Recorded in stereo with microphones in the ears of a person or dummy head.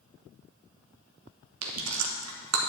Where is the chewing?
70° right (ahead or behind), 1.2 m.